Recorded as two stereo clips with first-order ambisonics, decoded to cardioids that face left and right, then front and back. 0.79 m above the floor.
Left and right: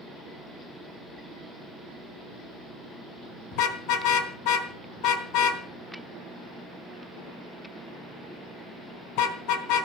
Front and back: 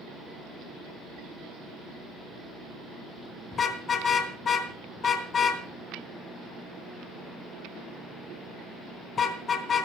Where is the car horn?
65° left, 3.5 m.